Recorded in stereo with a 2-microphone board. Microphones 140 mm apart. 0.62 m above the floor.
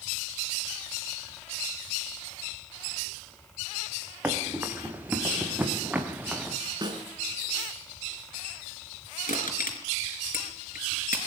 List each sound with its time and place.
4.2 s running footsteps: 15° right (ahead or behind), 4.5 m; by 6.6 s 10° right (ahead or behind), 3 m
6.8 s a snare drum: 30° right (ahead or behind), 5.5 m
9.3 s crushing: 85° left, 4 m